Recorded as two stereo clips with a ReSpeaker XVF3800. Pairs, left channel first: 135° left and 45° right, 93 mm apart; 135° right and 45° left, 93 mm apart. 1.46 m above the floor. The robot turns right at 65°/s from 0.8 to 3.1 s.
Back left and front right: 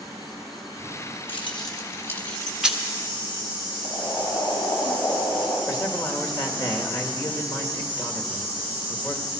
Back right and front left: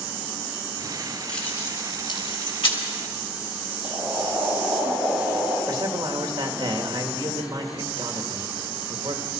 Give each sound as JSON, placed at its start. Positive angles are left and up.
{"t": 1.3, "sound": "keys jangling", "azimuth_deg": 145, "distance_m": 1.6}
{"t": 3.8, "sound": "boiling", "azimuth_deg": 115, "distance_m": 6.5}
{"t": 5.7, "sound": "a man speaking", "azimuth_deg": 90, "distance_m": 1.8}